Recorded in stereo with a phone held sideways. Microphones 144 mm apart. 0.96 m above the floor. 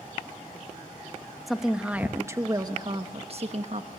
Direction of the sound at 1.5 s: Centre (ahead or behind).